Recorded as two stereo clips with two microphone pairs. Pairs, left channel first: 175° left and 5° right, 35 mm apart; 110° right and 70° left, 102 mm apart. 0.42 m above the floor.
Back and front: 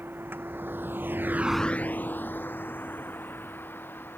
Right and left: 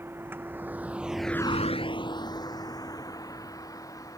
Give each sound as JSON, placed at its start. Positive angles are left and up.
{"t": 0.0, "sound": "a vehicle", "azimuth_deg": 0}